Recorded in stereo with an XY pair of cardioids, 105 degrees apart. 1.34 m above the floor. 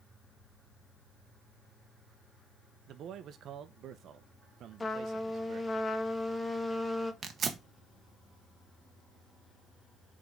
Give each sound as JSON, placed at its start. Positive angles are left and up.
{"t": 2.9, "sound": "a man speaking", "azimuth_deg": -65, "distance_m": 0.9}
{"t": 4.8, "sound": "a trumpet", "azimuth_deg": 25, "distance_m": 1.0}
{"t": 7.2, "sound": "tearing paper", "azimuth_deg": -50, "distance_m": 1.1}